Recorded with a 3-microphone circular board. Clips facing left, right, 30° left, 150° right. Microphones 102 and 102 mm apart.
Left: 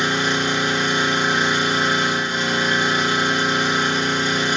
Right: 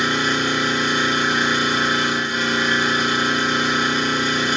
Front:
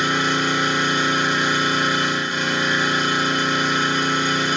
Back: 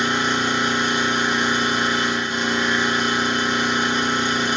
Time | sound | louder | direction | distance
0.0 | an engine running | even, even | 145° left | 1.1 m